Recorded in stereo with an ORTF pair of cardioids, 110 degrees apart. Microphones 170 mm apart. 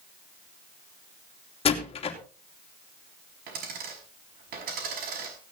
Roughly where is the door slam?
Ahead left.